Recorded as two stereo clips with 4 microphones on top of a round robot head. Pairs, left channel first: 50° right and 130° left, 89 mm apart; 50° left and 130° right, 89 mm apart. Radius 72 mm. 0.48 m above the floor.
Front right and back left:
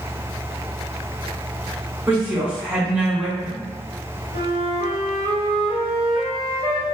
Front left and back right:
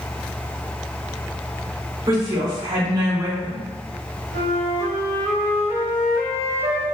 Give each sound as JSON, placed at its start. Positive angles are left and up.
{"t": 2.1, "sound": "a woman speaking", "azimuth_deg": -160, "distance_m": 1.4}
{"t": 4.3, "sound": "a flute", "azimuth_deg": -175, "distance_m": 1.1}